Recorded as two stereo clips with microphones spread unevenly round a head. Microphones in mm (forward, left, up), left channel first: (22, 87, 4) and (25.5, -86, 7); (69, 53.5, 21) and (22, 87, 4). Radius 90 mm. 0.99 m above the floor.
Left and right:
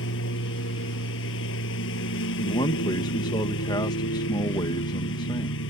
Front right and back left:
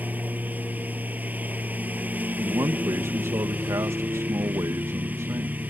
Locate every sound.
0.0 s a lawn mower: 80° left
2.4 s a man speaking: 160° left